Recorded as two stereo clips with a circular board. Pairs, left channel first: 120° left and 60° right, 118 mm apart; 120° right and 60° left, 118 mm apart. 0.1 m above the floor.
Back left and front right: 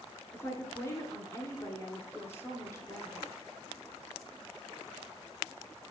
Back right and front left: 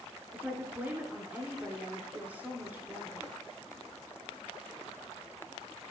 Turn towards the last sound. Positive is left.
turn(degrees=110)